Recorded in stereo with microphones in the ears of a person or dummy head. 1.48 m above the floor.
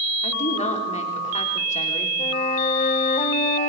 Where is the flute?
35° left (ahead or behind), 1.8 m.